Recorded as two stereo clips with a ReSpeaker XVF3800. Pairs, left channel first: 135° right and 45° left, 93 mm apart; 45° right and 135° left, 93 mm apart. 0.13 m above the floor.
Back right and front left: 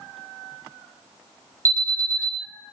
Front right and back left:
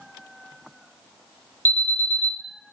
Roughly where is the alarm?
Ahead.